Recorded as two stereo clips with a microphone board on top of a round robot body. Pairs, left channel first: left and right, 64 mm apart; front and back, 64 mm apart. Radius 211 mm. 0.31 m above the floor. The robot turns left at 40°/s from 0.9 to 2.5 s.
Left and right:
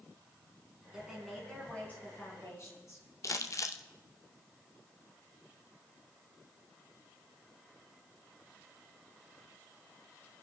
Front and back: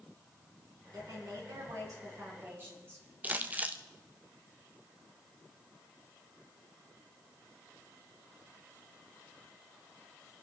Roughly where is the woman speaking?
Behind.